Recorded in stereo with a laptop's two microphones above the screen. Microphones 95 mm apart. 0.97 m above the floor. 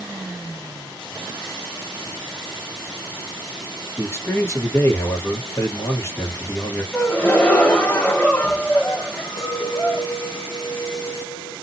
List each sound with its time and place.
4.0 s a man speaking: 25° left (ahead or behind), 1.1 m
6.9 s a gasp: 15° left (ahead or behind), 1.0 m
9.4 s a clink: 80° left, 1.1 m